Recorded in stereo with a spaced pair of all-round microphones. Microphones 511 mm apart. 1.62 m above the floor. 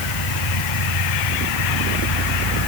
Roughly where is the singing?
No singing in this recording.